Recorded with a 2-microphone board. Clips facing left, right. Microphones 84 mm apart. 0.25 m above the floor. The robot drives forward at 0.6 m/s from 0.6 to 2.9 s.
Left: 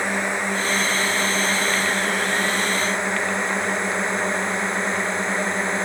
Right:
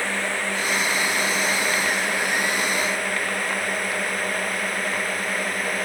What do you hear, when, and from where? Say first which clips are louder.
0.0 s a drone: left 2 dB; 20° left (ahead or behind); by 5.9 s 25° left (ahead or behind)